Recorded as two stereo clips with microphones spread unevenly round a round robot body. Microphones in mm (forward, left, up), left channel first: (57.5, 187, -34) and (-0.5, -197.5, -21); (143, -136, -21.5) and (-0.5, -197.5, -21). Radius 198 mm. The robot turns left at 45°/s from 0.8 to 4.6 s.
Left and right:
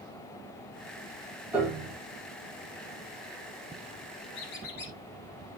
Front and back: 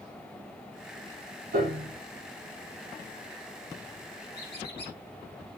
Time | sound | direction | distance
1.5 | a piano | 175° left | 6.5 m
4.3 | a squeak | 55° left | 4 m